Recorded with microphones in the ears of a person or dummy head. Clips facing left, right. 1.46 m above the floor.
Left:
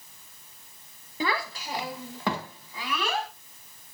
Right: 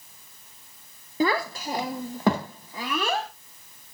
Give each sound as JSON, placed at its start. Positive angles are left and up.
{"t": 1.2, "sound": "a child speaking", "side_deg": -40, "distance_m": 0.6}